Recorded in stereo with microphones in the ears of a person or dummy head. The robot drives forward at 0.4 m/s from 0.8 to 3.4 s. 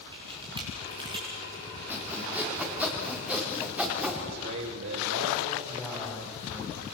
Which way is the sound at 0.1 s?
25° right (ahead or behind).